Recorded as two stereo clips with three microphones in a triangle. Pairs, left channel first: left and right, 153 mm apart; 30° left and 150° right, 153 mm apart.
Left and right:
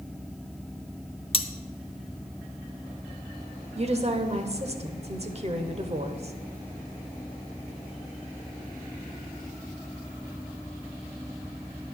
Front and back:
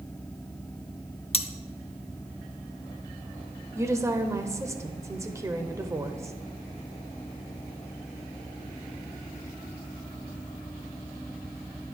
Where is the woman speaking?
85° right, 1.0 m.